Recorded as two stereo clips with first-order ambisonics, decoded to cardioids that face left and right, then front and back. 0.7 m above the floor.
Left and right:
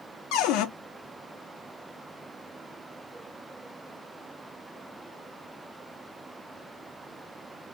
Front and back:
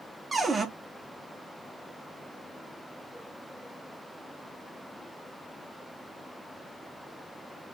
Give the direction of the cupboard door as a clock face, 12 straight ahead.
9 o'clock.